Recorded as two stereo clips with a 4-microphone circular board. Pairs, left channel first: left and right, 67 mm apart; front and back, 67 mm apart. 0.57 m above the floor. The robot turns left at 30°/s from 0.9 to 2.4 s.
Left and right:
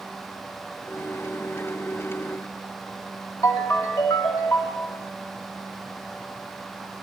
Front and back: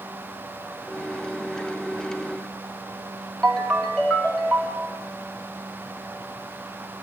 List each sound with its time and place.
3.4 s a ringtone: 80° left, 2.5 m